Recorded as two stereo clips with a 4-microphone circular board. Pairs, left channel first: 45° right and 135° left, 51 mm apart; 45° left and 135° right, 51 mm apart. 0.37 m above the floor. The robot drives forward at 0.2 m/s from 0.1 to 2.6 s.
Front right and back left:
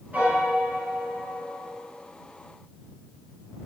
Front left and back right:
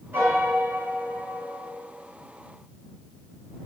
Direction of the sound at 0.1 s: 175° right.